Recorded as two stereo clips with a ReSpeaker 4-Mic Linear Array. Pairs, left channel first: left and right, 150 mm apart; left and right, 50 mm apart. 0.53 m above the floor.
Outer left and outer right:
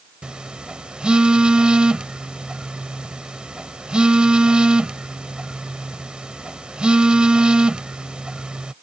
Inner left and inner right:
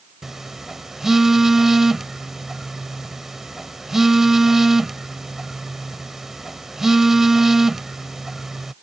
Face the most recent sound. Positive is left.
turn(degrees=-5)  # may be behind; listen again after turning